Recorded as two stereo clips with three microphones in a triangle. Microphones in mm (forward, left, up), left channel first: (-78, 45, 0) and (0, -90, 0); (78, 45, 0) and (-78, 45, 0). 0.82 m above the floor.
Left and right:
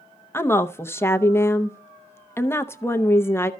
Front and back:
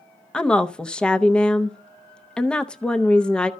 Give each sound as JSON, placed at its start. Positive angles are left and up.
{"t": 0.3, "sound": "a woman speaking", "azimuth_deg": 75, "distance_m": 0.6}